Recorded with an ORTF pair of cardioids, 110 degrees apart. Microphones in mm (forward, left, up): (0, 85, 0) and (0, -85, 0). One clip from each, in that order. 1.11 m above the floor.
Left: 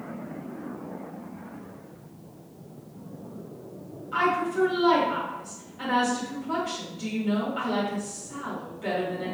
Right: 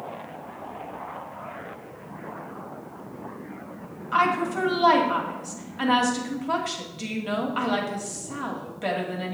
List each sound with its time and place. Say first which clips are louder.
4.1 s a woman speaking: right 2 dB; 55° right, 2 m